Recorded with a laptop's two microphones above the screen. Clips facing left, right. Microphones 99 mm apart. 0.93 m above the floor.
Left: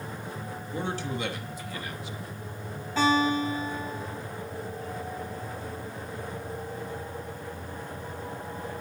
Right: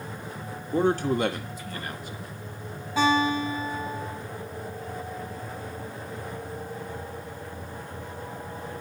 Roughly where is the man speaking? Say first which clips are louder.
Right 10 dB; right.